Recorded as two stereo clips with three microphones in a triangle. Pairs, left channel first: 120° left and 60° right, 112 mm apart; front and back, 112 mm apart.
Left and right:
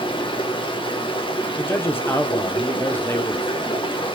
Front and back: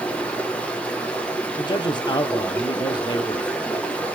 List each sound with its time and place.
0.0 s running water: 80° left, 1.2 m
1.6 s a man speaking: 50° left, 1.0 m